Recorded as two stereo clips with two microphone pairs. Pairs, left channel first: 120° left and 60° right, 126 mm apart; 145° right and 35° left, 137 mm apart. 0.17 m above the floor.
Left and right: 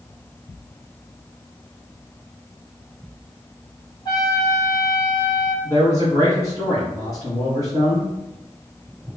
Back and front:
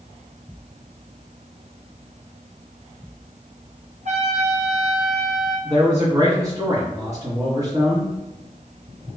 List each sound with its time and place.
4.0 s a trumpet: 65° left, 1.3 m
5.6 s a man speaking: 80° left, 1.9 m